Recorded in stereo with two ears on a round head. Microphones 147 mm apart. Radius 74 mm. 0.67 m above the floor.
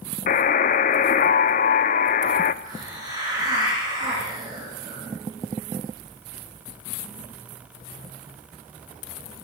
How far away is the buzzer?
About 0.7 m.